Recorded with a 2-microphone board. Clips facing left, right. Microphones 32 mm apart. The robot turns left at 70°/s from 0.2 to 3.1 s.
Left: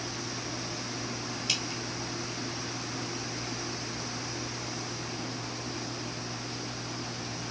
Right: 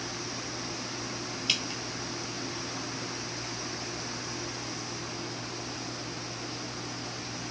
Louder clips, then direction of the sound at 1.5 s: Right 3 dB; 30° right (ahead or behind).